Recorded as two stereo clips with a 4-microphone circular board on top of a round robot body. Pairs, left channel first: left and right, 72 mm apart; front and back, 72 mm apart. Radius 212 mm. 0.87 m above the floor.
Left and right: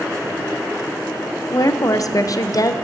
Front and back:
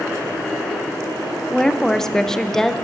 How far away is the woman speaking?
About 0.6 m.